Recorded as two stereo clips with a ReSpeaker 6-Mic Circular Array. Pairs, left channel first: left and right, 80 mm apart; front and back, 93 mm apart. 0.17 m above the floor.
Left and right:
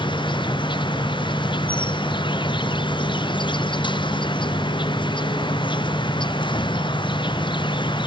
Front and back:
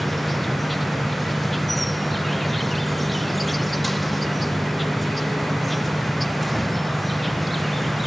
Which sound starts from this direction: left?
An insect, at 0.0 s.